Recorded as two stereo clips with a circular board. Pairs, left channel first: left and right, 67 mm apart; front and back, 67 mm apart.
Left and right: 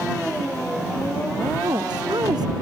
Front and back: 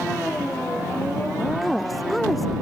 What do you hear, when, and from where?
1.6 s a woman speaking: 90° right